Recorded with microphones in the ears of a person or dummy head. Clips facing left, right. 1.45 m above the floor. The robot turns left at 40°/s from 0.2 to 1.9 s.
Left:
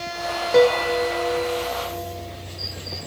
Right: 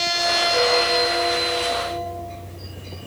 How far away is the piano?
About 1.1 m.